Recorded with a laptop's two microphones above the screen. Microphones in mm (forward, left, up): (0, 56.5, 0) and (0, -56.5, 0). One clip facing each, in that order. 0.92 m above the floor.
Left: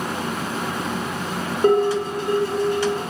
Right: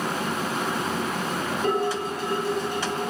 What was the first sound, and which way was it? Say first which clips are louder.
Dishes clattering: left 9 dB; 55° left (ahead or behind).